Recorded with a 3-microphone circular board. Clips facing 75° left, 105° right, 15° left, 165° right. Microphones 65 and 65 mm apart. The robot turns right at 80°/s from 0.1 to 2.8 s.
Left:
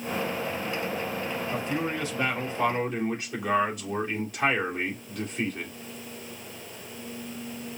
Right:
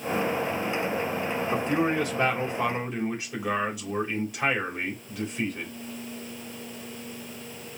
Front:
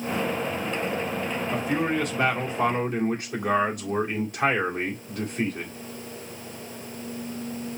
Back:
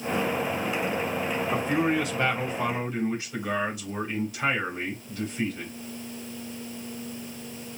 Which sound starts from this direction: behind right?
A man speaking, at 1.5 s.